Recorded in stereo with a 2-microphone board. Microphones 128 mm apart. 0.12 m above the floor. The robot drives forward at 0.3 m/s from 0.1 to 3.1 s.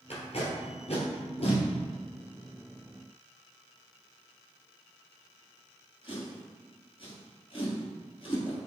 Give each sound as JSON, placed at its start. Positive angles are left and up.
{"t": 0.1, "sound": "tape being pulled", "side_deg": 60, "distance_m": 1.5}